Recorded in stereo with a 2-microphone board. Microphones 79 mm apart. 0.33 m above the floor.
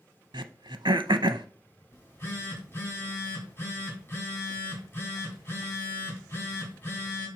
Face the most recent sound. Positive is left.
turn(degrees=25)  # may be behind; listen again after turning